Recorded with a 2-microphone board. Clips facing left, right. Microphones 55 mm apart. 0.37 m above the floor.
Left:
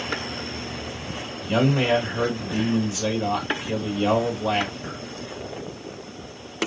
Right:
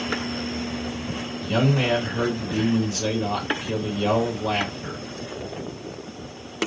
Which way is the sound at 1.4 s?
15° left (ahead or behind).